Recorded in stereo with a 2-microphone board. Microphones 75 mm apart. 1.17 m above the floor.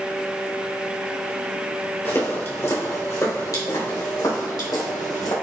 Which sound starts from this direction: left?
Footsteps, at 2.0 s.